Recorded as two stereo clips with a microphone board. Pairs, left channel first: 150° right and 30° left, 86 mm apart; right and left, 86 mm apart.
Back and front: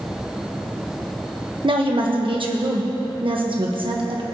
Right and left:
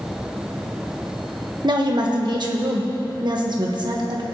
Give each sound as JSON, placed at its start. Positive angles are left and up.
{"t": 1.6, "sound": "a woman speaking", "azimuth_deg": 55, "distance_m": 1.4}